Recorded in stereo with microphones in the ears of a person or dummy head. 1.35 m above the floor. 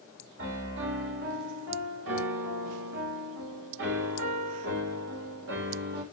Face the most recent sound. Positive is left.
turn(degrees=-75)  # may be behind; listen again after turning